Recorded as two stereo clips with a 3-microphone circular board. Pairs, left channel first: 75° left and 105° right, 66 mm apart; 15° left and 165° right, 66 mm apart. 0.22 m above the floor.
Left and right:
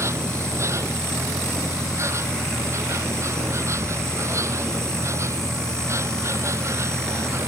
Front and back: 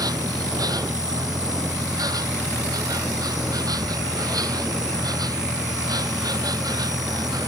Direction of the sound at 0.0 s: 150° right.